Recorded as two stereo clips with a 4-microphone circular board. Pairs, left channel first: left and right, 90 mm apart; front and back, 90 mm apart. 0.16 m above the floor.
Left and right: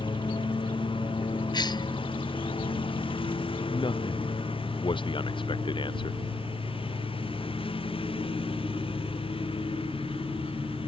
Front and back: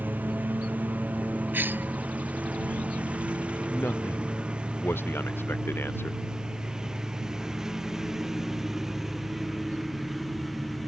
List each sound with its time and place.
0.0 s a lawn mower: 110° left; by 10.9 s 90° left
1.5 s a cough: 115° left
3.7 s a man speaking: 65° left